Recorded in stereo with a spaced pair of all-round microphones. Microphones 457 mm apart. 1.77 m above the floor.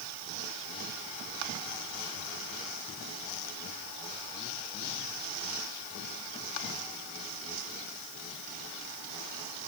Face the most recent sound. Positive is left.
No sound to turn to.